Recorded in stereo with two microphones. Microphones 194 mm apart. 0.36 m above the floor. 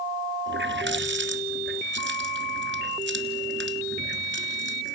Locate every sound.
0.5 s a running tap: 70° right (ahead or behind), 3 m